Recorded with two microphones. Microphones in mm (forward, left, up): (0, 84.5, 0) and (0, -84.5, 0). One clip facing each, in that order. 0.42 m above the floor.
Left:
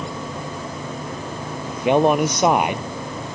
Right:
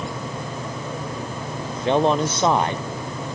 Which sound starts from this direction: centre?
A man speaking, at 1.6 s.